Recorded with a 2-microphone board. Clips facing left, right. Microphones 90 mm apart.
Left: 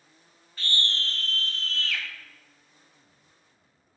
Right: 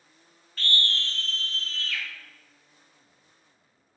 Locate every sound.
0.6 s a scream: 10° left (ahead or behind), 0.8 m; by 2.0 s 65° left (ahead or behind), 1.4 m